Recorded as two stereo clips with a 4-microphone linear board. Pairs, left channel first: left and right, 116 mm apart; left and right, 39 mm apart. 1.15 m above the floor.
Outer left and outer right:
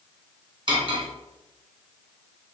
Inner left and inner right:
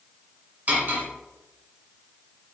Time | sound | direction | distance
0.7 | cutlery clinking | 40° right (ahead or behind) | 1.3 m